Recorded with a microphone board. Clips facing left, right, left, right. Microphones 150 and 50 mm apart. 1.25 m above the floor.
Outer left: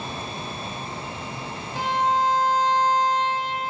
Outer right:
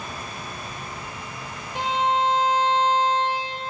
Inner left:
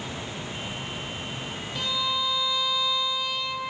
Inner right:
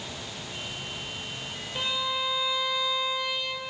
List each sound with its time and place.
1.8 s a violin: 20° right (ahead or behind), 1.8 m